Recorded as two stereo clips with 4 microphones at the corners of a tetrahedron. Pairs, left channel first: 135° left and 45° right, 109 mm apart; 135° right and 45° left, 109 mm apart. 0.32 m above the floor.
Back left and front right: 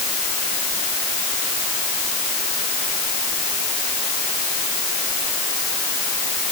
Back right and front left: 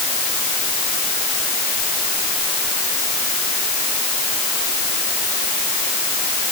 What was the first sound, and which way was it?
Only background noise.